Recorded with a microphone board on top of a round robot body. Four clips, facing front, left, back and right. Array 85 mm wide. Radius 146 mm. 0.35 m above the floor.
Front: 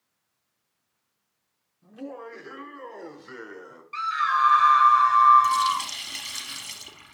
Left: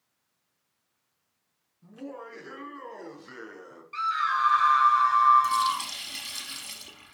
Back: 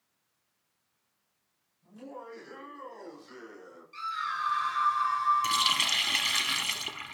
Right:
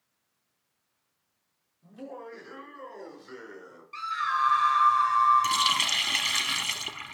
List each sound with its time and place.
1.8 s laughter: 40° left, 6 m; by 3.8 s 30° left, 6 m
3.9 s a scream: 20° left, 4 m
5.4 s a running tap: 130° right, 1.1 m